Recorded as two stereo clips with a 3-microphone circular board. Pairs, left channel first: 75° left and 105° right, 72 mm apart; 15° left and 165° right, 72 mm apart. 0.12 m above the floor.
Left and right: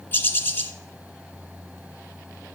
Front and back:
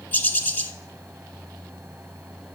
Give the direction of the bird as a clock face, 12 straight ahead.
10 o'clock.